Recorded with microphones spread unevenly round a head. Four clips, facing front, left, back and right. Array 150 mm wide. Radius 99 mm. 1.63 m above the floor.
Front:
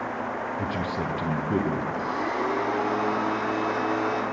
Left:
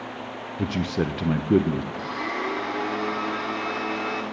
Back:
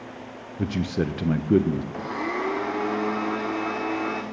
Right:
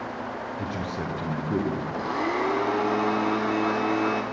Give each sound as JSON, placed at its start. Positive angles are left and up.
{"t": 0.6, "sound": "a man speaking", "azimuth_deg": 160, "distance_m": 0.7}
{"t": 1.9, "sound": "a blender", "azimuth_deg": -140, "distance_m": 0.8}